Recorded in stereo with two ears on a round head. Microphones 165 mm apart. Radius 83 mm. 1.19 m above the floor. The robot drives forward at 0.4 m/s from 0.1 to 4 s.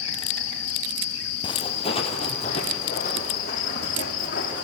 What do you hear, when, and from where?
0.0 s an insect: 75° left (ahead or behind), 3 m; by 4.6 s 55° left (ahead or behind), 3.5 m
1.4 s footsteps: 25° left (ahead or behind), 1.9 m; by 4.6 s 45° left (ahead or behind), 4.5 m